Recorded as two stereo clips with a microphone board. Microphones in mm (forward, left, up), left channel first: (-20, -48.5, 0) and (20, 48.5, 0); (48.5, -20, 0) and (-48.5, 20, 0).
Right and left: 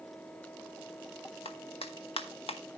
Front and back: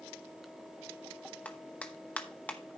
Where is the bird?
I don't hear a bird.